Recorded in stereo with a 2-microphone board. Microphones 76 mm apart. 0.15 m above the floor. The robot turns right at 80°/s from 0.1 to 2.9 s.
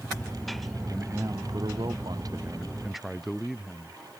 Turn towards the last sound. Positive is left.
turn(degrees=-5)